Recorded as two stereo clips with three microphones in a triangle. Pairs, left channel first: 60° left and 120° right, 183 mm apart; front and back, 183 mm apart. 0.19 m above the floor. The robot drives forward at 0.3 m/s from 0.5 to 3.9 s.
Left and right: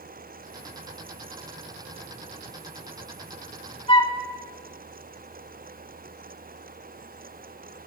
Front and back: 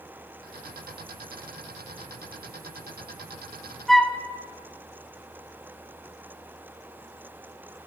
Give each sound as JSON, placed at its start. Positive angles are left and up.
{"t": 3.9, "sound": "a flute", "azimuth_deg": 85, "distance_m": 0.9}